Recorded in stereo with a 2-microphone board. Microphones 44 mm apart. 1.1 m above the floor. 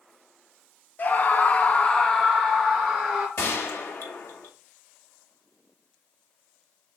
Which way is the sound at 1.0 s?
40° left (ahead or behind).